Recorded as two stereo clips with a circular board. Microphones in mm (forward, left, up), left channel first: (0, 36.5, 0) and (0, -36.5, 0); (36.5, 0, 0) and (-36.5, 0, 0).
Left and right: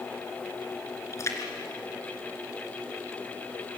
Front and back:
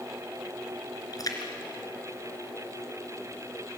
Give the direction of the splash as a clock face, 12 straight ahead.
11 o'clock.